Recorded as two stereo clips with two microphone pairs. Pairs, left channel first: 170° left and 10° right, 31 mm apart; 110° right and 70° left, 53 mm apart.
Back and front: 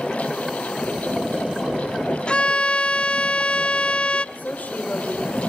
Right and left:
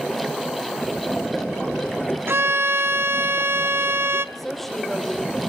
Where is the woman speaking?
165° left, 3 m.